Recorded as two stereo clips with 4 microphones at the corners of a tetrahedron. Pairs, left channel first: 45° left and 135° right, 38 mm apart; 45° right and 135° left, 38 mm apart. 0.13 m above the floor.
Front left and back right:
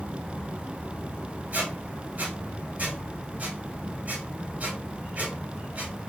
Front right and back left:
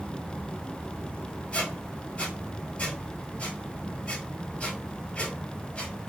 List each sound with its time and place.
1.5 s a squeak: 100° right, 0.9 m